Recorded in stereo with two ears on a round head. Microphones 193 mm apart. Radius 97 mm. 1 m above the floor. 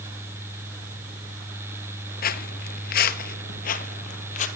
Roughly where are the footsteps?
Left.